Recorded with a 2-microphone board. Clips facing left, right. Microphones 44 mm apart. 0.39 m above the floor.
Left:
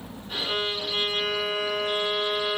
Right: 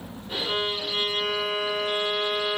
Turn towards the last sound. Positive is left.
turn(degrees=-20)  # may be behind; listen again after turning